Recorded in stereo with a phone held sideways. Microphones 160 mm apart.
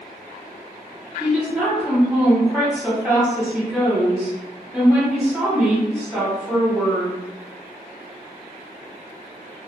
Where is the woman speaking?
5° right (ahead or behind), 1.4 m.